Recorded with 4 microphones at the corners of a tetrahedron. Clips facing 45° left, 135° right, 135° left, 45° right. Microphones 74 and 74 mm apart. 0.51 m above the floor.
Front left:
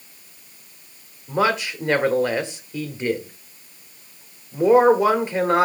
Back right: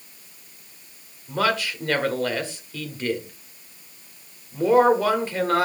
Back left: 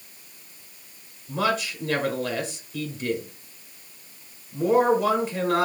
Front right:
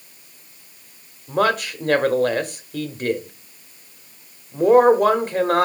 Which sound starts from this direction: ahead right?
A man speaking, at 1.3 s.